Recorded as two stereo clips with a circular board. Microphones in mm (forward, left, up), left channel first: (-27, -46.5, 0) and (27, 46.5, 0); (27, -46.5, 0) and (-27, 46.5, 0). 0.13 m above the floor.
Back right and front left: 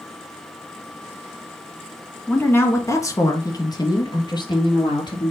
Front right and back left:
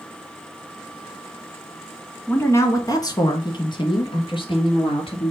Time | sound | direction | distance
2.3 | a woman speaking | 80° right | 1.2 m